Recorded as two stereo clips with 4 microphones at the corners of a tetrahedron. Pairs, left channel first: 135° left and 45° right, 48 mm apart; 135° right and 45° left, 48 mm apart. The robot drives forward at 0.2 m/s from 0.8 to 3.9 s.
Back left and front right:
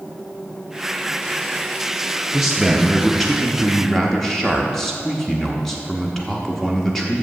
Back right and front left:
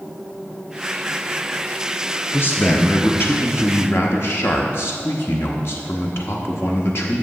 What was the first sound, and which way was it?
A man speaking, 120° right.